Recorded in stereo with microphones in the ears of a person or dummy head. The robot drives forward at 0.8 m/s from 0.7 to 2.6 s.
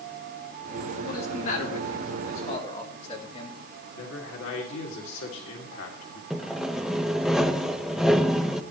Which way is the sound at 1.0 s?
55° left (ahead or behind).